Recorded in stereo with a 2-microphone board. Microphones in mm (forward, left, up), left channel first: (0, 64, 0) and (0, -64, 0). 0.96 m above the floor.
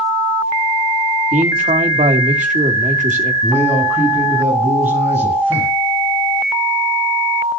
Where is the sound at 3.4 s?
15° right (ahead or behind), 10 m.